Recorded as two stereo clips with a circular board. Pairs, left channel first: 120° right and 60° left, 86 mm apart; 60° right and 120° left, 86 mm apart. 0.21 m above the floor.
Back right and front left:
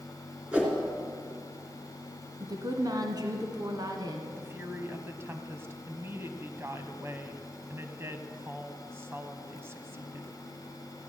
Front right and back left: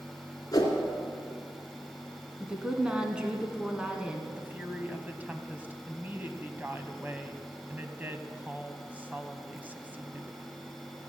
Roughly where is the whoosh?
Ahead.